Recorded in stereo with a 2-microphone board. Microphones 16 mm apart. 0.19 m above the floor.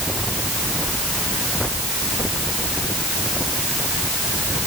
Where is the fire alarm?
I don't hear a fire alarm.